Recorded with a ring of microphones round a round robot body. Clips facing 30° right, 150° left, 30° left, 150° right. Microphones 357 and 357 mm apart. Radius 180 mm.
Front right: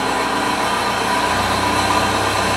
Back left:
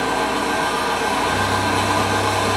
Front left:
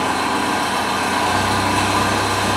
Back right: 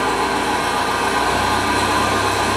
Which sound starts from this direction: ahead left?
An engine running, at 0.0 s.